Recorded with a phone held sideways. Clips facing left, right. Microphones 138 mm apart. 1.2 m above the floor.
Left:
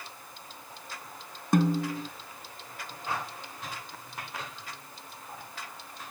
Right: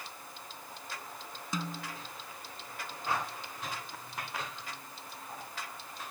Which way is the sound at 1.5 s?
60° left (ahead or behind).